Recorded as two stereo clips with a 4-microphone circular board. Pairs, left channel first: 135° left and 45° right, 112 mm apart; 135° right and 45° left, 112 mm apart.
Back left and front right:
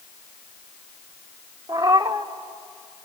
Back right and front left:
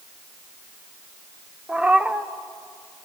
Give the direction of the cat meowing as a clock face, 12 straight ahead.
1 o'clock.